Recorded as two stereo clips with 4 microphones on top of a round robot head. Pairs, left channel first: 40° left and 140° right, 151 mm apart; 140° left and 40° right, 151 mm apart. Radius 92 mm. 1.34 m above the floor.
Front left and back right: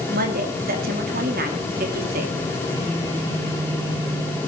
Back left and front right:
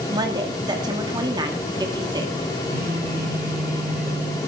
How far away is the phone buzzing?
About 5 m.